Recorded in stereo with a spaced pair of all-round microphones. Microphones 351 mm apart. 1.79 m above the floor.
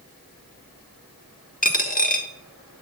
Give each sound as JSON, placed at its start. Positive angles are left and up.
{"t": 1.6, "sound": "a dropped coin", "side_deg": 25, "distance_m": 1.3}